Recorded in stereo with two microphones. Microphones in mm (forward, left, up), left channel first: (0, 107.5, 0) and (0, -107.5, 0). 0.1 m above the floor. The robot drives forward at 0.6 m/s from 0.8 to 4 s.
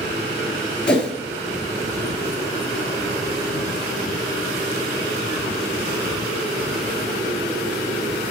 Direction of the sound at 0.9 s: 5° left (ahead or behind).